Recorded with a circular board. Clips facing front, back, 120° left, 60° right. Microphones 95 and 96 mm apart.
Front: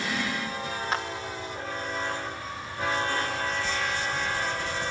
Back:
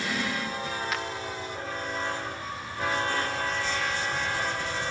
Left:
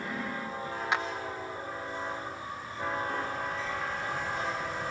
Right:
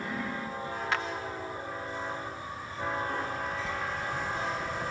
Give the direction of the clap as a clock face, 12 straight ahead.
10 o'clock.